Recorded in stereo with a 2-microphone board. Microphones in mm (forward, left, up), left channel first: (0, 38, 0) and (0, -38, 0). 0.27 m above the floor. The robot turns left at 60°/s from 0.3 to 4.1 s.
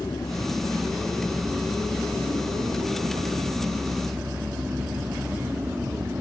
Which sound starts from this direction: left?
A vehicle, at 0.0 s.